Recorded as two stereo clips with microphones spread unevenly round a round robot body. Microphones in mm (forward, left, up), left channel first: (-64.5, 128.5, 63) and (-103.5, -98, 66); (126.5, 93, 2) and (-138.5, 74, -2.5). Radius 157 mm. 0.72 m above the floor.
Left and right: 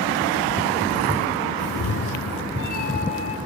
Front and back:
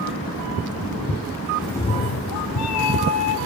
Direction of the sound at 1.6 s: 95° left.